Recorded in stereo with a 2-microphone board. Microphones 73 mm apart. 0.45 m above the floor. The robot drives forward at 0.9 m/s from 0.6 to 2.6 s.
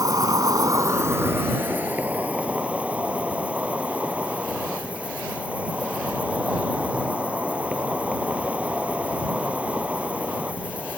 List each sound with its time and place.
0.0 s an insect: 60° right (ahead or behind); by 11.0 s 20° right (ahead or behind)